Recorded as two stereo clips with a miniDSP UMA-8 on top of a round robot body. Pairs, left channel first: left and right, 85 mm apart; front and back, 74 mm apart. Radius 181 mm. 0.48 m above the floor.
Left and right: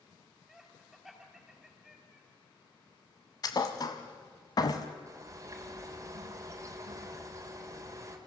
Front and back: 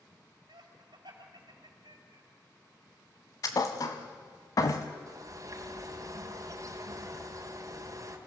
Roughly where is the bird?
Behind right.